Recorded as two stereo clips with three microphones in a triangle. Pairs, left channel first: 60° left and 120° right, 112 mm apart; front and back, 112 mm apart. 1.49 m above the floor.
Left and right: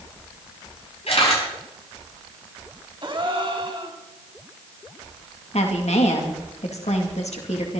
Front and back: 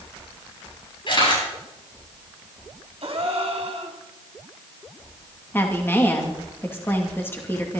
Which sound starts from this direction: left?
A woman speaking, at 5.5 s.